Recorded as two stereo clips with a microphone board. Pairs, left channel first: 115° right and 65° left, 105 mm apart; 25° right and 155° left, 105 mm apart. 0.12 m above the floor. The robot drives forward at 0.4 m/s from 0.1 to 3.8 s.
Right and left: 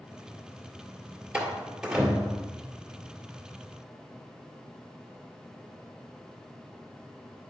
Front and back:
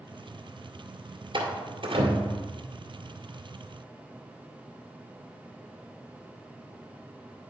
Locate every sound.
1.3 s a door slam: 145° left, 1.7 m; by 2.4 s 150° left, 2 m